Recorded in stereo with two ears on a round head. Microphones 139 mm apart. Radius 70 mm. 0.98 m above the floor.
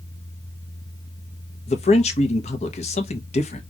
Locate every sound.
1.7 s a man speaking: 45° left (ahead or behind), 0.9 m